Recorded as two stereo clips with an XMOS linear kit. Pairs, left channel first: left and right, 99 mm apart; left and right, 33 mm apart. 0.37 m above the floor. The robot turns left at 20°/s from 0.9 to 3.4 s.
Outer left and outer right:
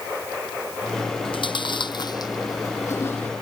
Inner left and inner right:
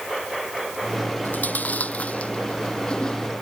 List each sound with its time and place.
1.2 s chewing: 60° left (ahead or behind); by 3.3 s 20° left (ahead or behind)